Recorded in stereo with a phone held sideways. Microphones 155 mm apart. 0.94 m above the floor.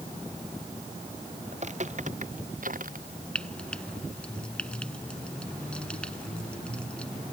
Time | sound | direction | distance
1.5 | footsteps | 50° right (ahead or behind) | ?
3.4 | frying | 5° left (ahead or behind) | ?